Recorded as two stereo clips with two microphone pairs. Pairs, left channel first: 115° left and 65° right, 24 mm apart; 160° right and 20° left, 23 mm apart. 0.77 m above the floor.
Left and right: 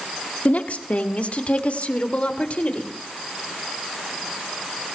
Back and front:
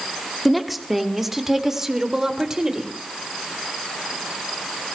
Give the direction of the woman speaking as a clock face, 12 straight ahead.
8 o'clock.